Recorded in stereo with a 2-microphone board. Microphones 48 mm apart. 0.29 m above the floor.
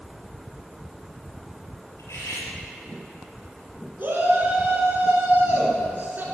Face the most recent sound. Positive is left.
turn(degrees=-40)  # may be behind; listen again after turning